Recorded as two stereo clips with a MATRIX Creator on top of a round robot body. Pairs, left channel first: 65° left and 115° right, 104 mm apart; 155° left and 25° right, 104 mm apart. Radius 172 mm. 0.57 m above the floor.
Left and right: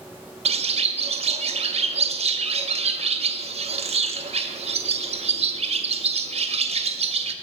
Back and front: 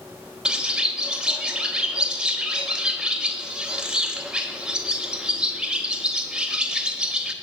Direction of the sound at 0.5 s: 105° right.